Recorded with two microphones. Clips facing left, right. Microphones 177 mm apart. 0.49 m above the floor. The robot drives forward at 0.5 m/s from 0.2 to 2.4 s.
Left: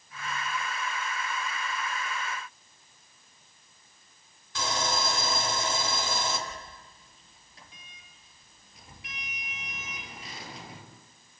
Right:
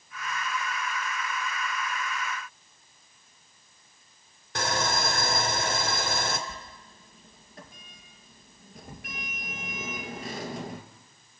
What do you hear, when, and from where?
4.5 s sawing: 60° right (ahead or behind), 2.5 m
6.5 s a sliding door: 50° right (ahead or behind), 2.0 m